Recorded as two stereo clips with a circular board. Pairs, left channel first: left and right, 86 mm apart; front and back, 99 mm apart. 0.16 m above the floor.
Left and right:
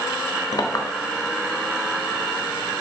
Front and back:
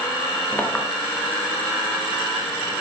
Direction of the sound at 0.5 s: 70° left.